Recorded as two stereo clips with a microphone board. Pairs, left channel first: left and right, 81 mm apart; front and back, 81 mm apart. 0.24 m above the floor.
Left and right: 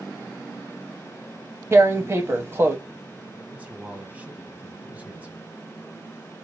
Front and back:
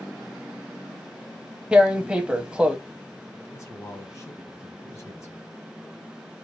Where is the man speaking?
25° right, 1.3 m.